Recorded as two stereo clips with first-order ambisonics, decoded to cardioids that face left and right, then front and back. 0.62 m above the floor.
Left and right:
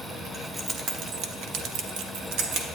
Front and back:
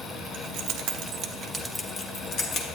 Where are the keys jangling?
170° right, 0.9 m; by 2.6 s 55° right, 1.1 m.